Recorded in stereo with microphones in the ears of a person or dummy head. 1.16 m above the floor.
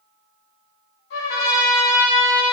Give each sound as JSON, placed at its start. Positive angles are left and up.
{"t": 1.1, "sound": "a trumpet", "side_deg": 65, "distance_m": 2.0}